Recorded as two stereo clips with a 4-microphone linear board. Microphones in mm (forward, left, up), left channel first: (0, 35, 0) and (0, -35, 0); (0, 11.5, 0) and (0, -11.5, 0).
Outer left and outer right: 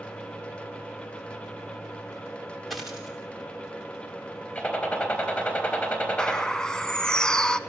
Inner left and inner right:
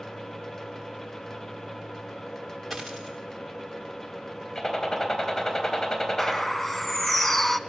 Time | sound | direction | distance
2.7 | a dropped coin | centre (ahead or behind) | 7.5 m
4.5 | a gunshot | 20° left (ahead or behind) | 4 m
6.2 | a bird | 10° left (ahead or behind) | 0.8 m